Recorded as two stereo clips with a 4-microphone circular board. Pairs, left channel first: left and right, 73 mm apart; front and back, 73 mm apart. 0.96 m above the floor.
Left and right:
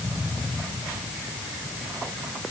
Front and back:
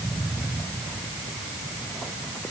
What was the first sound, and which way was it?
Only background noise.